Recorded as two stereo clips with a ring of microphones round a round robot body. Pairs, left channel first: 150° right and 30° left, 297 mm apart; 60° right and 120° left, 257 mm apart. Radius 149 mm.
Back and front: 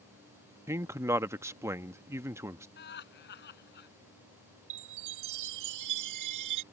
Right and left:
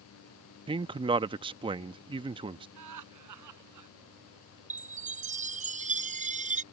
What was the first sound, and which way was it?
A man speaking, 95° left.